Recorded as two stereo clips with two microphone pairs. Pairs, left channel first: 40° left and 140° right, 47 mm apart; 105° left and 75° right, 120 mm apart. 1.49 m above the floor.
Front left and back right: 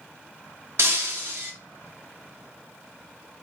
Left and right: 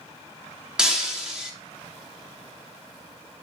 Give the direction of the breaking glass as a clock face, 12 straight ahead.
5 o'clock.